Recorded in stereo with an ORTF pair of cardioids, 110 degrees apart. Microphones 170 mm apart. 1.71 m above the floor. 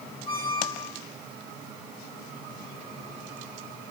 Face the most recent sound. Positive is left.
turn(degrees=35)